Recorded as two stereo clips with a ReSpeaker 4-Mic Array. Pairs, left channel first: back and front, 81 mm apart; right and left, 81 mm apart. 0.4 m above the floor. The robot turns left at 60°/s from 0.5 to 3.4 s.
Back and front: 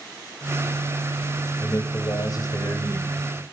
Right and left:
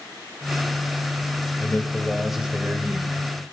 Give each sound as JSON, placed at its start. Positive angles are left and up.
{"t": 1.6, "sound": "a man speaking", "azimuth_deg": -140, "distance_m": 2.0}